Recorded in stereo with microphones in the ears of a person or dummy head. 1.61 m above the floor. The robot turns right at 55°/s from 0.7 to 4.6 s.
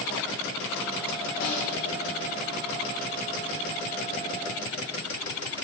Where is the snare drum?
75° left (ahead or behind), 5 m; by 1.7 s 85° left, 5 m.